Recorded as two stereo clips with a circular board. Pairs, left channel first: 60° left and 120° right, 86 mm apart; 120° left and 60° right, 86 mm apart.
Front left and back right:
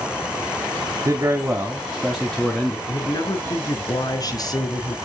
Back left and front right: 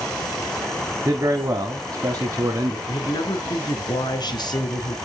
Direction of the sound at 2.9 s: 95° left.